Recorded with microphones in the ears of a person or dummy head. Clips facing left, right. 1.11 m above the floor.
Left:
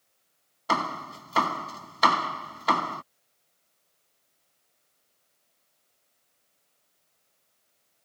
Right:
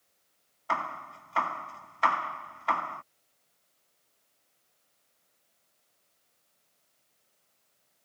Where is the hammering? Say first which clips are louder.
Left 6 dB; 60° left (ahead or behind).